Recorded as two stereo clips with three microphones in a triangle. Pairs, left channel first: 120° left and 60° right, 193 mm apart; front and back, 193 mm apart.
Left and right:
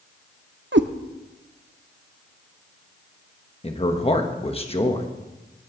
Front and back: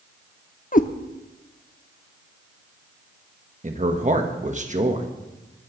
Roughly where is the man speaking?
Behind.